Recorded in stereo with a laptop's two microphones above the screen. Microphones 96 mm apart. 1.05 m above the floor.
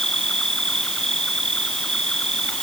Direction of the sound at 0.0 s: 5° left (ahead or behind).